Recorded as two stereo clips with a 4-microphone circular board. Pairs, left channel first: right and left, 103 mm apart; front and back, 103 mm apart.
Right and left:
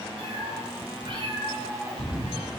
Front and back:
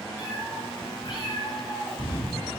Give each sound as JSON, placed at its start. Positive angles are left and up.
{"t": 0.2, "sound": "a cat meowing", "azimuth_deg": 65, "distance_m": 4.5}